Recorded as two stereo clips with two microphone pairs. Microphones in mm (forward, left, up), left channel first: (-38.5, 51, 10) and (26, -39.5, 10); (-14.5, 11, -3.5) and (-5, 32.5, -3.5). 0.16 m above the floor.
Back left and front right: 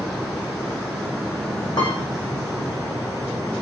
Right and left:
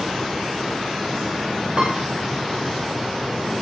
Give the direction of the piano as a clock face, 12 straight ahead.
9 o'clock.